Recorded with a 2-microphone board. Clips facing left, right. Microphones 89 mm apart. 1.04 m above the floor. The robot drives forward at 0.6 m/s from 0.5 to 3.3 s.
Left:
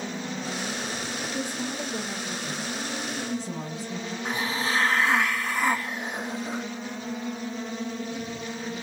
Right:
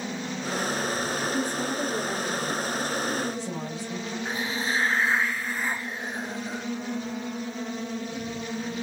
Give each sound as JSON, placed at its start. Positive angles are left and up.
{"t": 1.3, "sound": "a woman speaking", "side_deg": -40, "distance_m": 1.9}
{"t": 4.2, "sound": "a hiss", "side_deg": 75, "distance_m": 0.7}